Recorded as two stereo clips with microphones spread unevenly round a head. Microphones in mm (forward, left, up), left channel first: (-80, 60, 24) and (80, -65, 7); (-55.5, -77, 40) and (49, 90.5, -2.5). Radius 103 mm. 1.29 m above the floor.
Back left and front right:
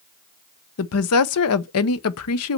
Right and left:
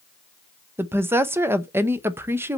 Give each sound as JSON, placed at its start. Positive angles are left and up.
{"t": 0.8, "sound": "a woman speaking", "azimuth_deg": 135, "distance_m": 0.7}